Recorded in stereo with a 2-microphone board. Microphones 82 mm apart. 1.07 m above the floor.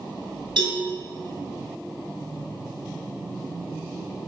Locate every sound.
0.6 s a cowbell: 75° right (ahead or behind), 2.5 m